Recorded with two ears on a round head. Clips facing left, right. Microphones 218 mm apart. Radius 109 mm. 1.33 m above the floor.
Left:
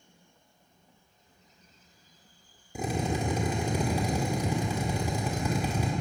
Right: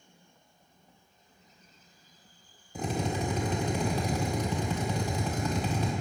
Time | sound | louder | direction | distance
2.8 | a drill | left 1 dB | 10° left (ahead or behind) | 1.8 m